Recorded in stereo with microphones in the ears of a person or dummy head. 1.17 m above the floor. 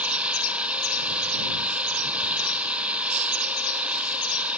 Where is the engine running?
10° right (ahead or behind).